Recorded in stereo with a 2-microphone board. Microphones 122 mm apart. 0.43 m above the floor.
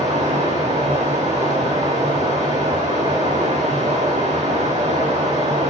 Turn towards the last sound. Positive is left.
turn(degrees=-70)  # may be behind; listen again after turning